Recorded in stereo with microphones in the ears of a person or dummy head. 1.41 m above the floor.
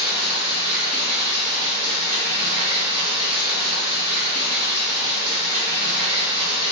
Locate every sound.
0.0 s running water: 25° right (ahead or behind), 1.0 m